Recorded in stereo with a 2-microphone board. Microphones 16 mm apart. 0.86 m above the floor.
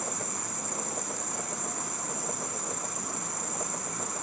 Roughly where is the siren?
No siren in this recording.